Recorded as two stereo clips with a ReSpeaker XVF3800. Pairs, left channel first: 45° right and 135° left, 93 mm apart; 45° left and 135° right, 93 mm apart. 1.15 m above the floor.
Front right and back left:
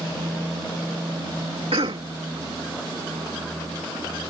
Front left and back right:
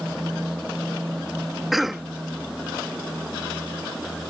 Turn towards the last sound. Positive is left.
turn(degrees=135)